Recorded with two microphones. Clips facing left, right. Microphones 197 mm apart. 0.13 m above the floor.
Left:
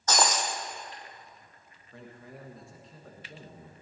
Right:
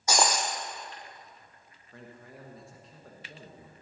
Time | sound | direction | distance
0.1 | breaking glass | 10° right (ahead or behind) | 1.3 m
1.9 | a man speaking | centre (ahead or behind) | 1.6 m